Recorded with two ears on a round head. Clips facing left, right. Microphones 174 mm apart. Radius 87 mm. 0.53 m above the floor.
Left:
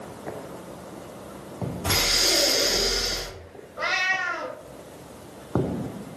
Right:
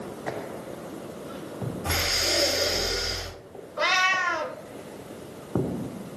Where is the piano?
No piano in this recording.